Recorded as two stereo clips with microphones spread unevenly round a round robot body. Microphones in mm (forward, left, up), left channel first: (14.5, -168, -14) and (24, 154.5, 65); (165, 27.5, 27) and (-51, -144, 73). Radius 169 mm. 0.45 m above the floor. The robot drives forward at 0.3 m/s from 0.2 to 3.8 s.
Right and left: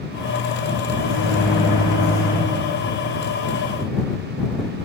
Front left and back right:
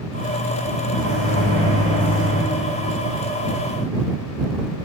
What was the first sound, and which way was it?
A microwave, 145° right.